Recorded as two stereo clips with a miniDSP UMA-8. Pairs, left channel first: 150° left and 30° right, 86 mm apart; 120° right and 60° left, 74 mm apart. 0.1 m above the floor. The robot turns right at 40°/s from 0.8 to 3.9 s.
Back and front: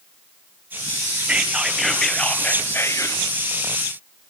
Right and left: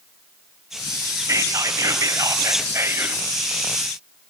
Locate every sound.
1.3 s whispering: 35° left, 1.8 m; by 3.2 s 115° left, 1.8 m